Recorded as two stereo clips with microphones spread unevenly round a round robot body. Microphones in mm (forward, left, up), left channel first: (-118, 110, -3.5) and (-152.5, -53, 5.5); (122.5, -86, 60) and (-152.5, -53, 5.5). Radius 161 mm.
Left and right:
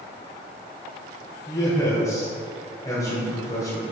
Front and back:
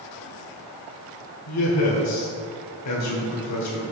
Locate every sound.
1.5 s a man speaking: 10° left, 1.8 m